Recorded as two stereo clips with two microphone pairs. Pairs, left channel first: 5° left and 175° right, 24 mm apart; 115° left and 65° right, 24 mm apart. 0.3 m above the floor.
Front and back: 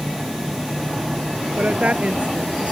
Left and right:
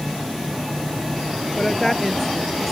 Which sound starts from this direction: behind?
A woman speaking, at 1.6 s.